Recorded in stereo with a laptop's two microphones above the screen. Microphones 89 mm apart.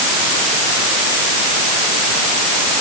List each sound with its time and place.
Only background noise.